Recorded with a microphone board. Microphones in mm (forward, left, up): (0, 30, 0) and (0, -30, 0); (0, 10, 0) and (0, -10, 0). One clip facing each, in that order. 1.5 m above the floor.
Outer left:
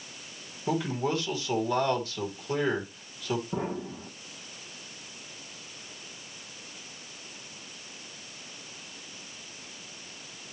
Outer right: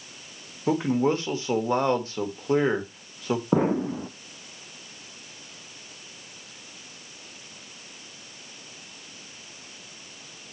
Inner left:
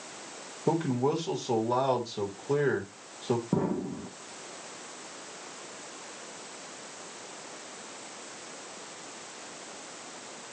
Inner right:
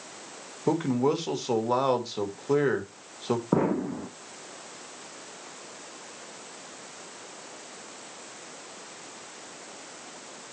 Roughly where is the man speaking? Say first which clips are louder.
Outer right 6 dB, inner right 3 dB; right.